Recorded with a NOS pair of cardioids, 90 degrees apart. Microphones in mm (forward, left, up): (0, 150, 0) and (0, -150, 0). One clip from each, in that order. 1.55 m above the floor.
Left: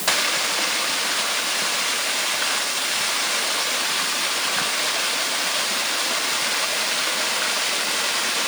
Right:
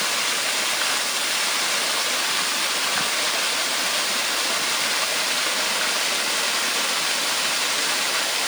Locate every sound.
Only background noise.